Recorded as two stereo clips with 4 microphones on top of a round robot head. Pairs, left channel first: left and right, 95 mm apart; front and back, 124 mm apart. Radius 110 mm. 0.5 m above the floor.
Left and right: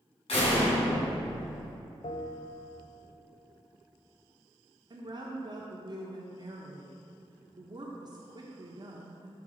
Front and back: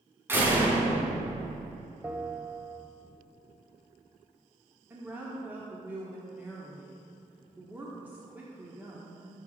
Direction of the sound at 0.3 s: 110° left.